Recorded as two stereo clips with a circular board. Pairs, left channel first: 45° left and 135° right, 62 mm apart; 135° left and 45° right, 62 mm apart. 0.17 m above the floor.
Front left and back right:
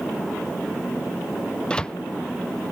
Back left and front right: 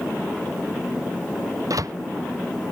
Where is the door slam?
30° right.